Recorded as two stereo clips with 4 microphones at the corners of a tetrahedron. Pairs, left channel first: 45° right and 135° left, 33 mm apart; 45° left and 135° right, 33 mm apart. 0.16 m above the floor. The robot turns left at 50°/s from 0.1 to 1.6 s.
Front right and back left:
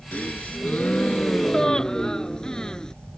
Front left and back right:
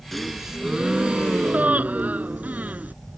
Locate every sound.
0.1 s a gasp: 35° right; by 2.9 s 110° right